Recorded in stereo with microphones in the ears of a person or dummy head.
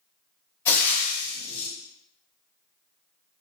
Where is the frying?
20° left (ahead or behind), 0.8 m.